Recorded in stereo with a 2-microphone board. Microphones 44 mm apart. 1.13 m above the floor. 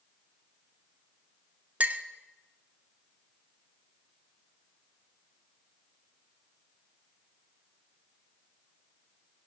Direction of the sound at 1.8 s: 35° right (ahead or behind).